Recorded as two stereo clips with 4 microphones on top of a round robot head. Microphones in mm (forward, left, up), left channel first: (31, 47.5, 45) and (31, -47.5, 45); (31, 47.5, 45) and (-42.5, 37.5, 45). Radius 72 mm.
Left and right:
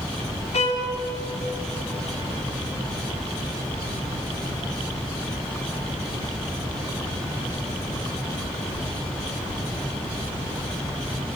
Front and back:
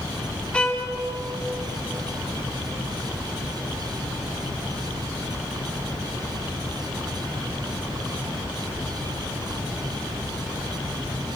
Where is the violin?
85° left, 2 m.